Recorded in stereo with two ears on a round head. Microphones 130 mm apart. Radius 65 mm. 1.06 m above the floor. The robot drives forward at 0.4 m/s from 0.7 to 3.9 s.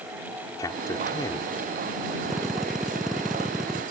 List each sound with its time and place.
0.6 s a man speaking: 25° left (ahead or behind)
2.2 s a drill: 5° right (ahead or behind)